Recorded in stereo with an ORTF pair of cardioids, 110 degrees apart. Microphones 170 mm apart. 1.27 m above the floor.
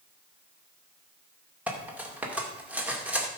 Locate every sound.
1.7 s cutlery clinking: 10° right, 2 m